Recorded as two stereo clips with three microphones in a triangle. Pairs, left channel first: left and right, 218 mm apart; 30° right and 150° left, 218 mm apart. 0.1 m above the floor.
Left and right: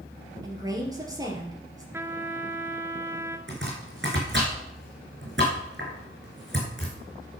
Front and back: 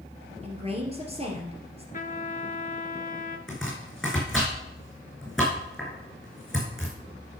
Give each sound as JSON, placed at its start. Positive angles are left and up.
{"t": 0.4, "sound": "a woman speaking", "azimuth_deg": -160, "distance_m": 2.5}
{"t": 1.9, "sound": "a trumpet", "azimuth_deg": -20, "distance_m": 0.6}
{"t": 3.5, "sound": "chopping", "azimuth_deg": -120, "distance_m": 4.0}